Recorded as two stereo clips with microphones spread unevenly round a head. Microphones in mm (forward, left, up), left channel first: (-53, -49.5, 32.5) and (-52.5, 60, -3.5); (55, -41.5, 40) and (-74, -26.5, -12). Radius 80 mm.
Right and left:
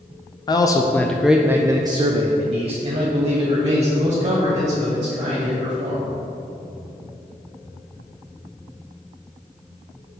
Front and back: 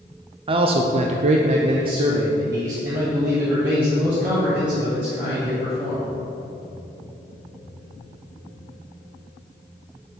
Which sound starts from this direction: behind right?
A man speaking, at 0.5 s.